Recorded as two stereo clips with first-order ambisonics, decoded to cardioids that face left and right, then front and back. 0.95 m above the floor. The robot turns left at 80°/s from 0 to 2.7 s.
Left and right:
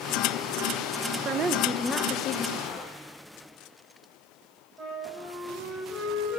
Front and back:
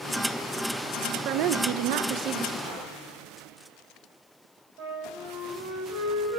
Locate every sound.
1.2 s a woman speaking: 140° right, 0.5 m; by 2.5 s 115° left, 0.5 m
2.6 s a gunshot: 140° left, 2.5 m; by 3.2 s 135° left, 2.5 m
4.8 s a flute: 175° right, 5 m